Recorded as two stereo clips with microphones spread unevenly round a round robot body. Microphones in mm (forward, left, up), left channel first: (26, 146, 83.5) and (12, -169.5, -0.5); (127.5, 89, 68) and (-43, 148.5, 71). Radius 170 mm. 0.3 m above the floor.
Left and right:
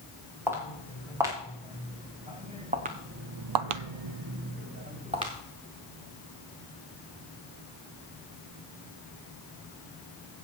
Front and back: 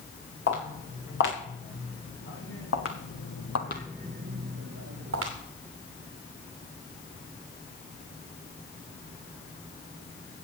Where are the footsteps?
10° right, 5.5 m; by 5.3 s 170° right, 2.5 m.